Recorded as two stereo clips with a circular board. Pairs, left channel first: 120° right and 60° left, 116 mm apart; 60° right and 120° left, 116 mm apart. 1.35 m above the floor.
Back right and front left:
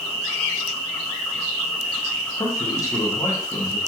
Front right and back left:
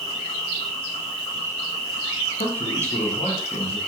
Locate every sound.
0.0 s an insect: 40° right, 1.7 m
2.4 s a man speaking: 60° right, 0.7 m